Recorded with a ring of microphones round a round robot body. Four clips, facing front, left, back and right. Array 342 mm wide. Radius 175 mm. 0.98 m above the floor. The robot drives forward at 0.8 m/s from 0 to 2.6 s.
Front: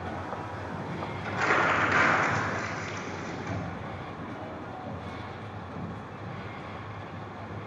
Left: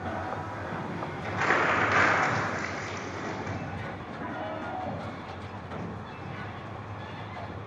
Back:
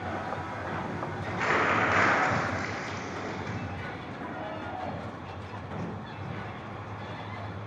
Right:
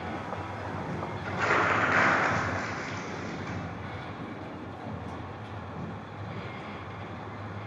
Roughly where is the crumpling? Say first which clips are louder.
Even, front 1 dB; left.